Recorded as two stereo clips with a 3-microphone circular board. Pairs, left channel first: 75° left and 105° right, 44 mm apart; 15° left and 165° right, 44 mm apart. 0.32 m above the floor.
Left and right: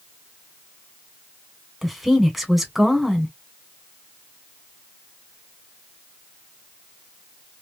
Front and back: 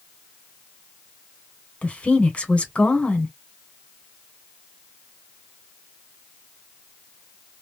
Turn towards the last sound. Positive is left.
turn(degrees=-20)